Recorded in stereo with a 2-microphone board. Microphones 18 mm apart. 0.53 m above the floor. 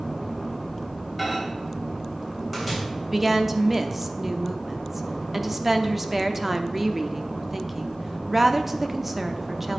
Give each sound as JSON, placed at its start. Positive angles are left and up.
{"t": 1.2, "sound": "a microwave", "side_deg": -5, "distance_m": 3.0}
{"t": 3.1, "sound": "a woman speaking", "side_deg": -15, "distance_m": 0.7}